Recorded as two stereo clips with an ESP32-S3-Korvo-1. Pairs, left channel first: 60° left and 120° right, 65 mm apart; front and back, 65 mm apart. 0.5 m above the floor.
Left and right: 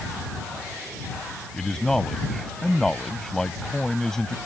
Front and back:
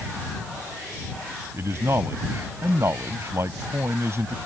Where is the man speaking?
140° left.